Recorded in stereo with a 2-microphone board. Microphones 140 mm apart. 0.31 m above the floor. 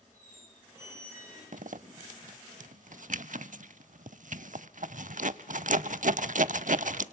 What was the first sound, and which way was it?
A squeak, 20° right (ahead or behind).